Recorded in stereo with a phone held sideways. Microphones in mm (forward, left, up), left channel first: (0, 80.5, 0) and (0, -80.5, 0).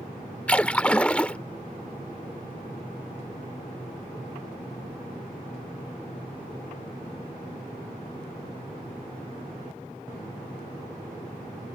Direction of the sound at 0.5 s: 10° left (ahead or behind).